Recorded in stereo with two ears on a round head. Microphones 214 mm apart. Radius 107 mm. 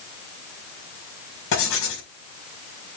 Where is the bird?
No bird in this recording.